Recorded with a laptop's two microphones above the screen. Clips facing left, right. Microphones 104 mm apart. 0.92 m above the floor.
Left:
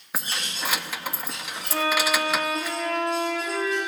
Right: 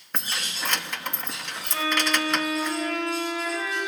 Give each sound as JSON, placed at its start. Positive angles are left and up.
{"t": 0.1, "sound": "keys jangling", "side_deg": 5, "distance_m": 0.8}
{"t": 1.7, "sound": "a violin", "side_deg": 45, "distance_m": 5.5}